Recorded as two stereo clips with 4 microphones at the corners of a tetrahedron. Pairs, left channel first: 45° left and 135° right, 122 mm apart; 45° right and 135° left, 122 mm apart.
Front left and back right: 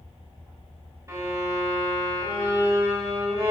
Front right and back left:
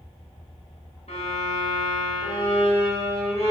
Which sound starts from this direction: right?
A violin, at 1.1 s.